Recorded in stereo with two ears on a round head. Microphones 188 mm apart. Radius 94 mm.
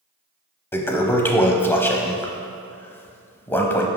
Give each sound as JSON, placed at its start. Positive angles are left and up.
{"t": 0.7, "sound": "a toilet flushing", "side_deg": 10, "distance_m": 0.7}